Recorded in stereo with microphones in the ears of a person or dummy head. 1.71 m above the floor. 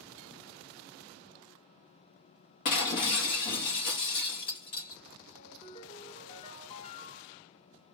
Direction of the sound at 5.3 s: 35° left (ahead or behind).